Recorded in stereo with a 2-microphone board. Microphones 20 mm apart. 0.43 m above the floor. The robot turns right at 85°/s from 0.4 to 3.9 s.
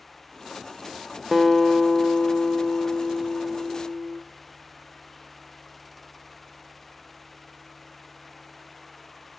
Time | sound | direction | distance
1.3 | a guitar | 20° right | 0.7 m